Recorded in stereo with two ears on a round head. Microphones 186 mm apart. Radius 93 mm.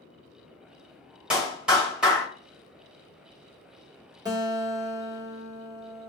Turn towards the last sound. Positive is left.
turn(degrees=-20)  # may be behind; listen again after turning